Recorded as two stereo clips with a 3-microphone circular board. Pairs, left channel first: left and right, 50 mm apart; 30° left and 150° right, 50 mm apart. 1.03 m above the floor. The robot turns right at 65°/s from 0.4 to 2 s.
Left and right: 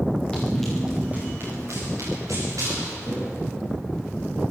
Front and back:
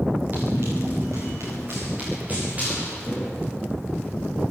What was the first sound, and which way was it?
Running footsteps, 160° left.